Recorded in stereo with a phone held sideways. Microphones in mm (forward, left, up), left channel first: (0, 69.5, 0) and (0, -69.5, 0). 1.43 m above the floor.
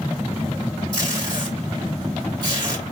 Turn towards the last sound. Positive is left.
turn(degrees=-30)  # may be behind; listen again after turning